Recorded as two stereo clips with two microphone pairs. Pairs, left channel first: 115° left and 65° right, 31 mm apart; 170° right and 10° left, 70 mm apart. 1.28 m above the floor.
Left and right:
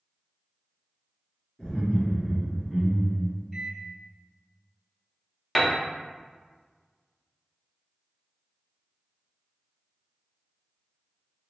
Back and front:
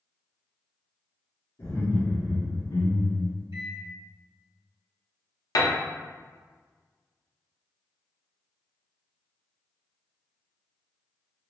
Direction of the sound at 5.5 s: 160° right.